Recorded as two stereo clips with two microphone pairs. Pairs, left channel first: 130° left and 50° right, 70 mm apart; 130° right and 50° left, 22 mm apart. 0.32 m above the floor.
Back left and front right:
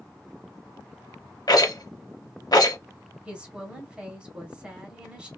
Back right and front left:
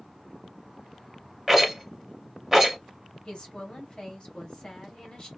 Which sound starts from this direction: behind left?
A rattle, at 1.5 s.